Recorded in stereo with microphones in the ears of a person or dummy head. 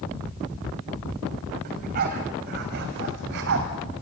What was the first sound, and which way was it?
A dog barking, 45° right (ahead or behind).